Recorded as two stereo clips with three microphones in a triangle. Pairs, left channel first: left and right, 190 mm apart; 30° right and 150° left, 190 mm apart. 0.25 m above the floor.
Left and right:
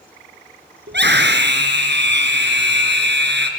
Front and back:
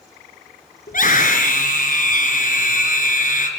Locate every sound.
0.9 s a scream: 75° right, 3.5 m